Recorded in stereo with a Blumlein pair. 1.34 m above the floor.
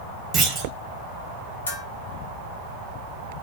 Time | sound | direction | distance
0.3 | a clunk | 20° right | 1.0 m
1.7 | a bell | 65° left | 1.0 m